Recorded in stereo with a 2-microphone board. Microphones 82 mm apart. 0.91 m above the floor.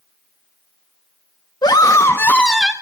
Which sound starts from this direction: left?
A scream, at 1.6 s.